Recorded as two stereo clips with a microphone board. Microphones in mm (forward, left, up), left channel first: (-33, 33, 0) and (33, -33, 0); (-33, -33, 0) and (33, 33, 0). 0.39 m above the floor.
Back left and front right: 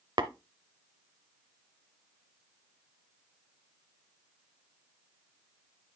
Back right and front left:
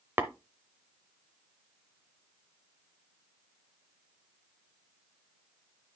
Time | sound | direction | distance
0.2 | tapping | 20° right | 0.7 m